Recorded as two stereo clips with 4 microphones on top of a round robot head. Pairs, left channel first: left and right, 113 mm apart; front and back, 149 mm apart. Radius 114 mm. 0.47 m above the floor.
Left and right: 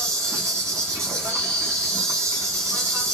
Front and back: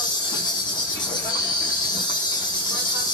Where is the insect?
45° right, 0.9 m.